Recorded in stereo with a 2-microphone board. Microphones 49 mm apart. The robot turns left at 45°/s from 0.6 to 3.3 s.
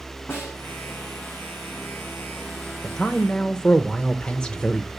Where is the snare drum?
55° left (ahead or behind), 5.5 m.